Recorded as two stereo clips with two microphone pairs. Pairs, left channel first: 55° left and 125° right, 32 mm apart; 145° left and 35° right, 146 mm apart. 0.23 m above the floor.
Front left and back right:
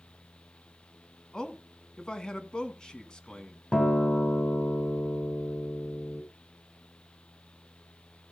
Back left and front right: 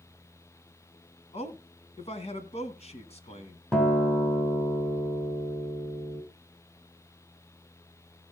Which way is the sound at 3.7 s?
65° left.